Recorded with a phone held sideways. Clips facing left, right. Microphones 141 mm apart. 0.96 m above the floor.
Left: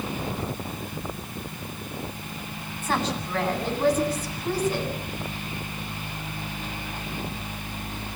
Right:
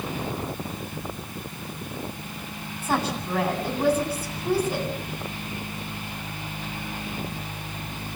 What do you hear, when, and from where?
2.8 s a woman speaking: 10° right (ahead or behind), 9 m